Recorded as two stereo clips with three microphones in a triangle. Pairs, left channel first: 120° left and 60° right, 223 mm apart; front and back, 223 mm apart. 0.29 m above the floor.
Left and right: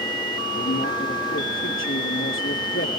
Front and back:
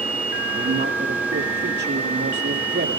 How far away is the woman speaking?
About 6.5 m.